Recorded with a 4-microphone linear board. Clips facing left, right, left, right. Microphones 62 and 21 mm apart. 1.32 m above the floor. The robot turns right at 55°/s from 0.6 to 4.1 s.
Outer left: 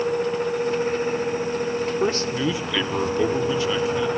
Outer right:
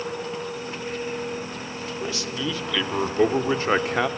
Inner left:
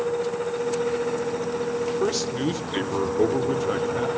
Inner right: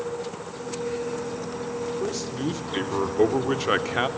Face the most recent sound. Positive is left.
turn(degrees=-110)